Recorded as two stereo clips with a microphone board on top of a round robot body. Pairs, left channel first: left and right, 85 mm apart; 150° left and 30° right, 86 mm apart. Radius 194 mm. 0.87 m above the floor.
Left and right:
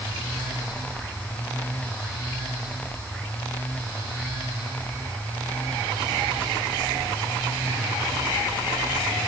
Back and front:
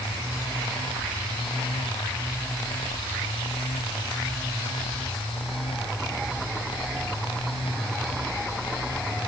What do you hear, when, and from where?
Only background noise.